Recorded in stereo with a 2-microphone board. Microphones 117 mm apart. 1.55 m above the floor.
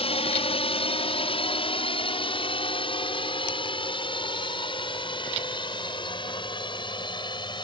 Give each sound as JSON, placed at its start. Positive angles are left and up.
{"t": 0.0, "sound": "a drone", "side_deg": 55}